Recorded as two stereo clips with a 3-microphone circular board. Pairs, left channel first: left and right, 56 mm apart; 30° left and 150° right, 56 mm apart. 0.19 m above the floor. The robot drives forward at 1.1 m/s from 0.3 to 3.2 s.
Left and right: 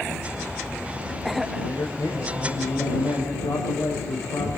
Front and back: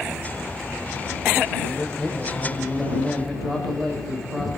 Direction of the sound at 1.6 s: 110° left.